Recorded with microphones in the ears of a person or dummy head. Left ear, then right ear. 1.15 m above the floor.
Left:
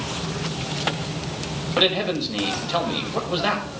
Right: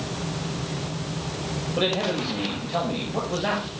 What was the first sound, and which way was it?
A man speaking, 40° left (ahead or behind).